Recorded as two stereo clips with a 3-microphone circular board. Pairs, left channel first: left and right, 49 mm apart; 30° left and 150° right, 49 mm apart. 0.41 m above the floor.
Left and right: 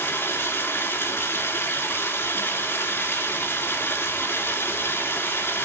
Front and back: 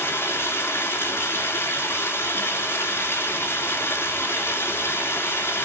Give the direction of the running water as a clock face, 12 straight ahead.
10 o'clock.